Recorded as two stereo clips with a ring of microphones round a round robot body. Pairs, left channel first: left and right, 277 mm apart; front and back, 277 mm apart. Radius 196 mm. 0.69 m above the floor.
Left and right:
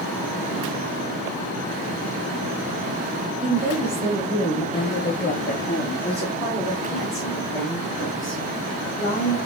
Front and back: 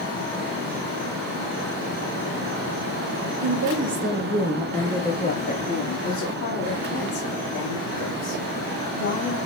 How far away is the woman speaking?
About 1.1 m.